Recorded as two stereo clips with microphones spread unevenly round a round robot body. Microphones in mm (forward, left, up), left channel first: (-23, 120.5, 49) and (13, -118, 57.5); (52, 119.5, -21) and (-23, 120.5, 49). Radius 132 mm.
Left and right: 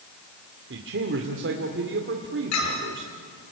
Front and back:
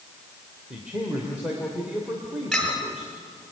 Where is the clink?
80° left, 5.5 m.